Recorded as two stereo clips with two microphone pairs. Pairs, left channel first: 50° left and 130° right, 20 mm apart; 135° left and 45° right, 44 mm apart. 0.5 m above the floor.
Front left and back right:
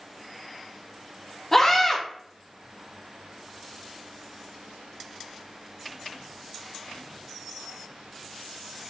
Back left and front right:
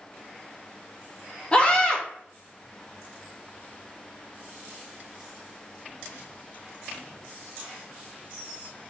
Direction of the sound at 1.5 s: 105° left.